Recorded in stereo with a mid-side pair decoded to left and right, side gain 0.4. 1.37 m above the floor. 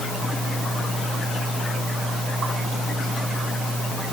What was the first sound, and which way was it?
Only background noise.